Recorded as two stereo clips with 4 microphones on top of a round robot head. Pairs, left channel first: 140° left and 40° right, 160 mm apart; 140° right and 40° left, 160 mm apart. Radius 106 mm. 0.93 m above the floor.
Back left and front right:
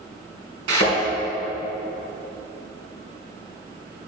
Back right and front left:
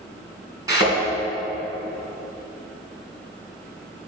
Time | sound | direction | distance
0.7 | a thud | 30° right | 3 m